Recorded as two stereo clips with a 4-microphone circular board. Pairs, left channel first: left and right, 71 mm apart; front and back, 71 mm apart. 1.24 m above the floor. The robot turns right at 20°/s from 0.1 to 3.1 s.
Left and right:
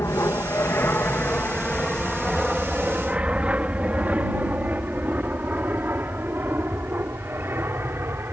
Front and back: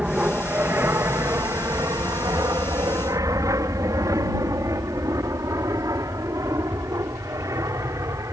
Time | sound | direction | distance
0.0 | an aircraft | 115° left | ?